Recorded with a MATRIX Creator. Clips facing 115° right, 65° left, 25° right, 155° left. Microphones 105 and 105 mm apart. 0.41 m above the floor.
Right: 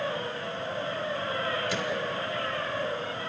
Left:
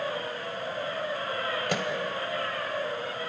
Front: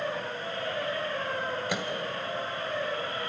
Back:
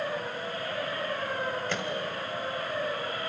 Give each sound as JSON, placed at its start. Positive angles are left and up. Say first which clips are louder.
{"t": 1.7, "sound": "a microwave", "louder": "left 1 dB, even", "azimuth_deg": 55, "distance_m": 1.7}